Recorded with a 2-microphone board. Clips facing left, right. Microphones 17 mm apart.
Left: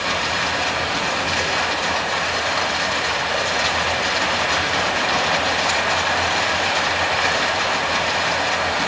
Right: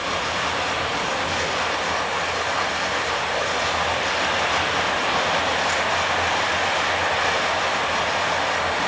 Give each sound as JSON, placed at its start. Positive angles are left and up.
{"t": 0.0, "sound": "running water", "side_deg": 45, "distance_m": 4.5}